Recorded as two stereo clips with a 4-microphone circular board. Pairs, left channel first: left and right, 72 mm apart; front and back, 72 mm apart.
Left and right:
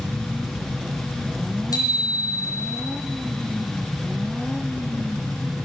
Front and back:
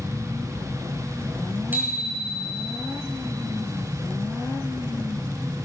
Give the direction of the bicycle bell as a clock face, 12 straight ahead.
8 o'clock.